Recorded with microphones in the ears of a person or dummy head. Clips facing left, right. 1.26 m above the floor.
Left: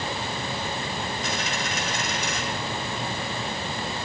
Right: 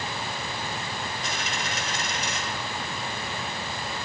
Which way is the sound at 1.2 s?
60° left (ahead or behind).